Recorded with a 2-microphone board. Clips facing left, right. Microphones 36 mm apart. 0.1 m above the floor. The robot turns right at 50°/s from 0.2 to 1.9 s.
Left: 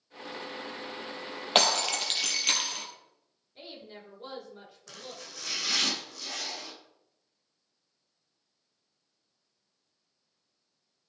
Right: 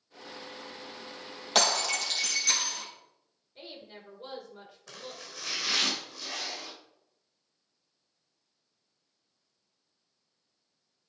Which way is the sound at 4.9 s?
10° right (ahead or behind).